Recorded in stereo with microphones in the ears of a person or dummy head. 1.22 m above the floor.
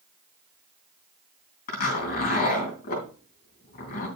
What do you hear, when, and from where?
1.7 s a zipper: 45° left (ahead or behind), 3.5 m